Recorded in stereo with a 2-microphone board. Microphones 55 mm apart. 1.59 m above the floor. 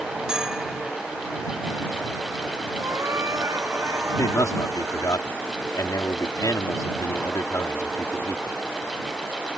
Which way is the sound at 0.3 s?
15° right (ahead or behind).